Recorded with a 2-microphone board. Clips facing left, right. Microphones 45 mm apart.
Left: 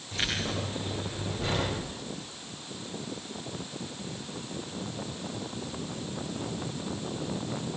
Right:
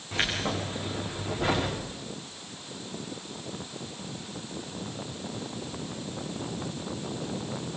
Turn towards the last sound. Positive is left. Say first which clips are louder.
# right 3 dB
turn(degrees=-30)  # may be behind; listen again after turning